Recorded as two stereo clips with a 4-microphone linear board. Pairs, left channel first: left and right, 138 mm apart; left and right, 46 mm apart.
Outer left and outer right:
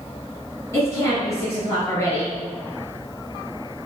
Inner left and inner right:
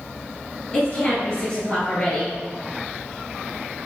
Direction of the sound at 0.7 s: 20° left (ahead or behind).